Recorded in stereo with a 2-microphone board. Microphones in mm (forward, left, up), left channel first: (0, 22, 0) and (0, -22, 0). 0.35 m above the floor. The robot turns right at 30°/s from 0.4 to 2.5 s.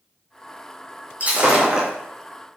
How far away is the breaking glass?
About 4 m.